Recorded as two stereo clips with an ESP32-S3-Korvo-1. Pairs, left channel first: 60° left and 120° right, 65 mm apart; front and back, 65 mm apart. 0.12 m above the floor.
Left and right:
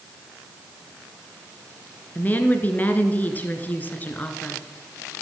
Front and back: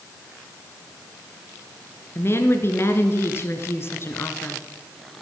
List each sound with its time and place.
2.1 s a woman speaking: 10° left, 1.9 m